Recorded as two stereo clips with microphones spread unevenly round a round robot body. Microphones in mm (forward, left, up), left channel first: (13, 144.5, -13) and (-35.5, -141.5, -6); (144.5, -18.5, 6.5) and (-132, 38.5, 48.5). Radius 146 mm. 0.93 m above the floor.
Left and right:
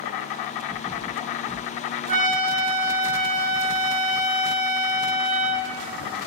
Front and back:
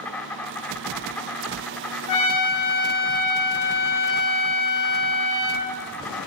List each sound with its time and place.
0.0 s an insect: 80° left, 0.9 m
2.1 s a trumpet: 35° right, 1.6 m